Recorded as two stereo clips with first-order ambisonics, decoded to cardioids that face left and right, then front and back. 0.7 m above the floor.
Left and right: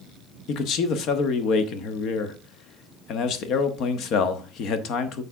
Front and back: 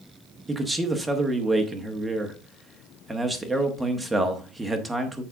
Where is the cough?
No cough in this recording.